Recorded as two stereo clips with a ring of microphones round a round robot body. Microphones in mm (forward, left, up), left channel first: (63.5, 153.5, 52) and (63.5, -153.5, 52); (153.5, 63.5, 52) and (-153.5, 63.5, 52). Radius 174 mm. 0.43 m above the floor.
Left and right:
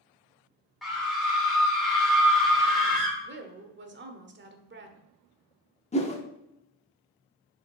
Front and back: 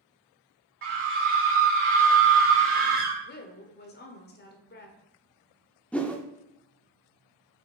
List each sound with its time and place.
0.8 s a scream: straight behind, 1.7 m
3.2 s a woman speaking: 50° right, 1.3 m
5.9 s a whoosh: 80° left, 1.2 m